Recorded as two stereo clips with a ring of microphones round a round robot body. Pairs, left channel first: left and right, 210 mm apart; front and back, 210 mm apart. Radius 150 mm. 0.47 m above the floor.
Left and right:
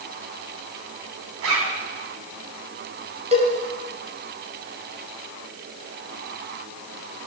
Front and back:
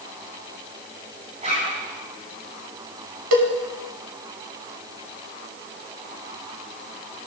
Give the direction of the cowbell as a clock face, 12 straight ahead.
5 o'clock.